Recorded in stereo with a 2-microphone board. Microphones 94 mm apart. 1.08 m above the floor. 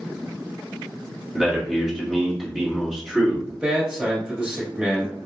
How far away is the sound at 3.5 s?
About 2 m.